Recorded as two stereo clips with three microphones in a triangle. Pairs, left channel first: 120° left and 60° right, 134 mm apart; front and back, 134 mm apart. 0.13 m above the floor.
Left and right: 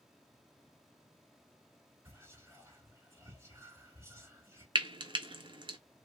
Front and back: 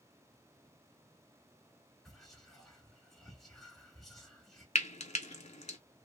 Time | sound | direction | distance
2.0 | whispering | 85° right | 1.1 m
4.8 | frying | 10° right | 0.5 m